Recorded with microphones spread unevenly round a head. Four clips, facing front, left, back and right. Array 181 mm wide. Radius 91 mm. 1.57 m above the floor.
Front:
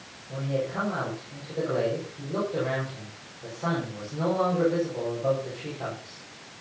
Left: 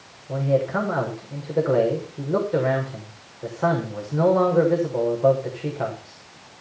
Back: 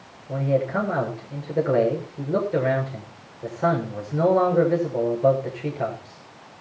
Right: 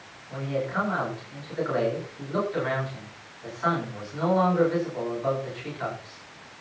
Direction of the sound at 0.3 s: 125° left.